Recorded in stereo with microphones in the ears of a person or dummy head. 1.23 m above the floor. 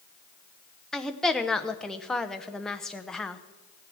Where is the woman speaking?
5° left (ahead or behind), 0.8 m.